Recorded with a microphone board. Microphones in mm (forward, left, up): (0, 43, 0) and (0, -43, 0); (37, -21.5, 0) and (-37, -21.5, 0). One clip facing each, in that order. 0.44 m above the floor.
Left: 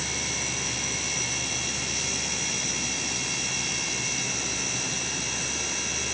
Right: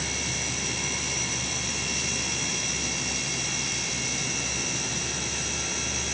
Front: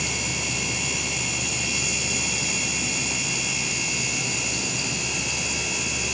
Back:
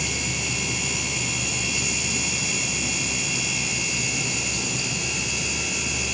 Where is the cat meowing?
No cat meowing in this recording.